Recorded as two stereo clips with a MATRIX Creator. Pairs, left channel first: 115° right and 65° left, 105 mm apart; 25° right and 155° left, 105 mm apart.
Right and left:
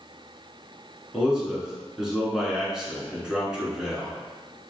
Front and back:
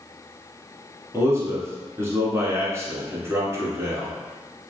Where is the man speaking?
145° left, 1.4 m.